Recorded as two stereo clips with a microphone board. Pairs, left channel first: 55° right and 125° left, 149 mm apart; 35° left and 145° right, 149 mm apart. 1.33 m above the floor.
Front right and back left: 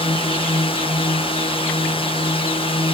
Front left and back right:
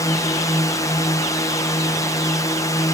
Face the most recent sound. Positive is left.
turn(degrees=-25)